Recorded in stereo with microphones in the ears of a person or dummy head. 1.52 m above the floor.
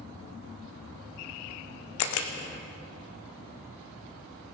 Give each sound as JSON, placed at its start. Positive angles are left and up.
{"t": 2.0, "sound": "a camera shutter", "side_deg": 70, "distance_m": 1.0}